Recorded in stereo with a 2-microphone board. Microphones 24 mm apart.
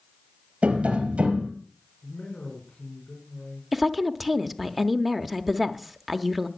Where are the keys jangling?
No keys jangling in this recording.